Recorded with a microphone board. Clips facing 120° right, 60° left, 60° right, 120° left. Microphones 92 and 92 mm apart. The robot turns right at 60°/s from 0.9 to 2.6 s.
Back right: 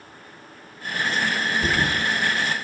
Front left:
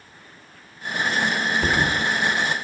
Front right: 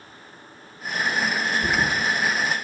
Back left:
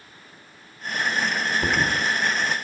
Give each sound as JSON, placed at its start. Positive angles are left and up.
{"t": 1.6, "sound": "a thud", "azimuth_deg": 100, "distance_m": 0.7}